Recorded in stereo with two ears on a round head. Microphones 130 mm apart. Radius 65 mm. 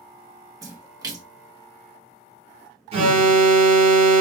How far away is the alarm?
About 1.5 m.